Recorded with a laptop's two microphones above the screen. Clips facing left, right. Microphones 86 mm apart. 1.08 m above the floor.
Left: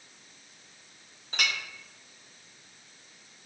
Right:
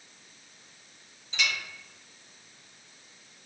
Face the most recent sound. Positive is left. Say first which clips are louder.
# even
turn(degrees=50)  # may be behind; listen again after turning